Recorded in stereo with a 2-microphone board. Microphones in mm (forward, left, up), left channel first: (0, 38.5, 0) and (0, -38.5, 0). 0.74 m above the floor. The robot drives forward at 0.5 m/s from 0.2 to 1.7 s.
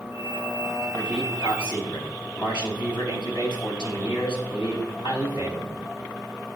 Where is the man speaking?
85° left, 4.5 m.